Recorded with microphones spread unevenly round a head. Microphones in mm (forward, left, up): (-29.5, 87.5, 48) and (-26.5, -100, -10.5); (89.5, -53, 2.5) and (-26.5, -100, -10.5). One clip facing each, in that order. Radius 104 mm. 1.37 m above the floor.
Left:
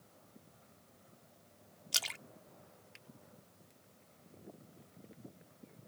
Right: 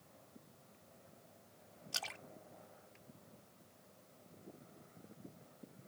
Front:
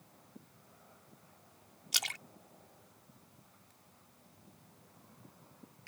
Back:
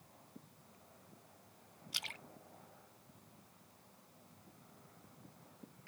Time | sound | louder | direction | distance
1.9 | a splash | right 1 dB, front 7 dB | 40° left | ?